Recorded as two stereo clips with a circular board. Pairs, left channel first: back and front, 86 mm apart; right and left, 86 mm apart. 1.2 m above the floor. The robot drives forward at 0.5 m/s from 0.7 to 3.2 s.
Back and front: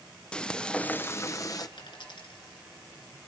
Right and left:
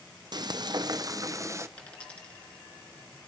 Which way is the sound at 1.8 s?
165° right.